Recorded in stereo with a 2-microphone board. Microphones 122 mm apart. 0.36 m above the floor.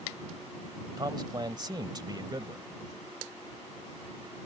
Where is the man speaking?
35° right (ahead or behind).